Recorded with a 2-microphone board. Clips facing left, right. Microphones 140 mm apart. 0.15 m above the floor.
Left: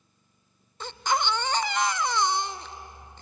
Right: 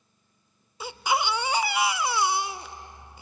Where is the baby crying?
10° right (ahead or behind), 0.5 m.